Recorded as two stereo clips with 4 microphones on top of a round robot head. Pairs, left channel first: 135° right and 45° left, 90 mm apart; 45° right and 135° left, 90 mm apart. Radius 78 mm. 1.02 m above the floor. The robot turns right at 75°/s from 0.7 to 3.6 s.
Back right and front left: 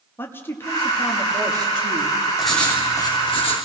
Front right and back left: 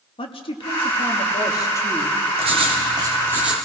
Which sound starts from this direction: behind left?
Writing, at 2.4 s.